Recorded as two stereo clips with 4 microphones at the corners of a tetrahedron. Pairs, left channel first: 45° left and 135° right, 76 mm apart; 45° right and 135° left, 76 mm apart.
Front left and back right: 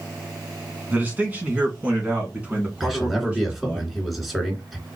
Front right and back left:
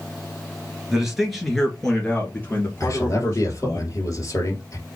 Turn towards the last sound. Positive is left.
turn(degrees=-45)